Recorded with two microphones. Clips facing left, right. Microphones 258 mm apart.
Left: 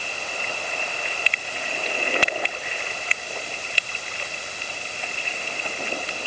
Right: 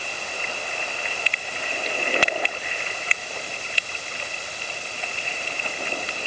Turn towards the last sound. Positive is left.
No sound to turn to.